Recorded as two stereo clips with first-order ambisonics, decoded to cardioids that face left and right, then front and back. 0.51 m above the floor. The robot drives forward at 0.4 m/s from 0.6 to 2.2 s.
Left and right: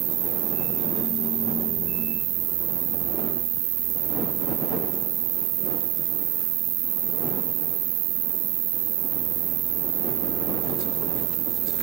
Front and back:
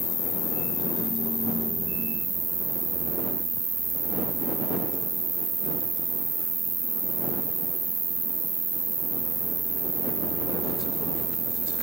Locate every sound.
0.0 s an insect: 75° right, 1.1 m; by 11.8 s 110° right, 1.1 m